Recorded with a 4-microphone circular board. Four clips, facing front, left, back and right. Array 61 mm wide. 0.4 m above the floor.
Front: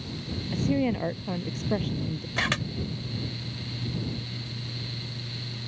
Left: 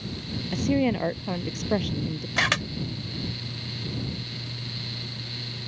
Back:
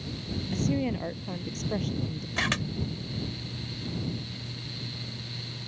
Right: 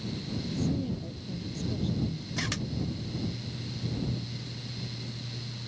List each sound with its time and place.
0.5 s a woman speaking: 75° left
2.4 s a camera shutter: 85° left